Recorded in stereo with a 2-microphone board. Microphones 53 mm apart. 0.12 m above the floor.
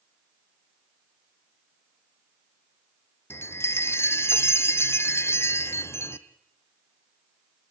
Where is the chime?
60° left (ahead or behind), 1.1 m.